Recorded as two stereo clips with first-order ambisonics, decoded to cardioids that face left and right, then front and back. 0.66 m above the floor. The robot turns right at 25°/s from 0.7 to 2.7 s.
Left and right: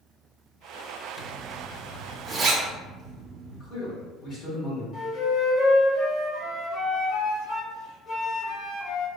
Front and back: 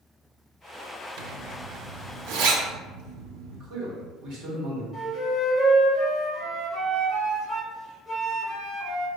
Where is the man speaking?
145° left, 1.7 m.